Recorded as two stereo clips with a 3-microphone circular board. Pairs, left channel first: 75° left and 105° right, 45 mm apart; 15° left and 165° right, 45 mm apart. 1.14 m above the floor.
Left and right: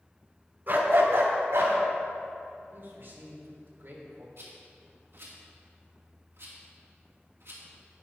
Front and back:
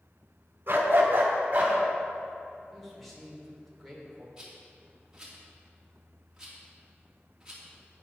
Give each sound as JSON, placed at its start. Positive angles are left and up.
{"t": 0.7, "sound": "a dog barking", "azimuth_deg": -140, "distance_m": 1.9}
{"t": 2.7, "sound": "a man speaking", "azimuth_deg": -70, "distance_m": 3.5}
{"t": 4.4, "sound": "a rattle", "azimuth_deg": -90, "distance_m": 3.0}